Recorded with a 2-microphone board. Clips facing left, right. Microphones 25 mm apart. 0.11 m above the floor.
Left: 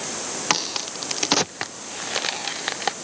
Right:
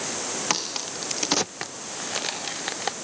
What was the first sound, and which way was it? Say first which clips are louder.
A crack: left 6 dB; 15° left (ahead or behind).